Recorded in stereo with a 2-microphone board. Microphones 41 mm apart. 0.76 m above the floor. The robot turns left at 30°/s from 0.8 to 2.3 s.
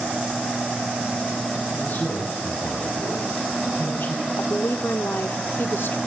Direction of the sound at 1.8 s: 55° left (ahead or behind).